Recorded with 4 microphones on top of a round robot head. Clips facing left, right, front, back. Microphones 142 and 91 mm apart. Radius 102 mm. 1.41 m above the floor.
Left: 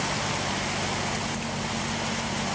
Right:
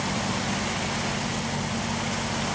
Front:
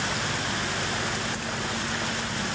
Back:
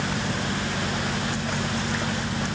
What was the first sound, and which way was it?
Only background noise.